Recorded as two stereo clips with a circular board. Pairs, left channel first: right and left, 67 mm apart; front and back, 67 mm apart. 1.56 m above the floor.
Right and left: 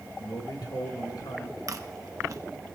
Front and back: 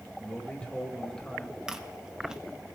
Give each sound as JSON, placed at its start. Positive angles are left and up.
{"t": 0.2, "sound": "a man speaking", "azimuth_deg": -75, "distance_m": 3.0}
{"t": 1.7, "sound": "chewing", "azimuth_deg": 105, "distance_m": 1.0}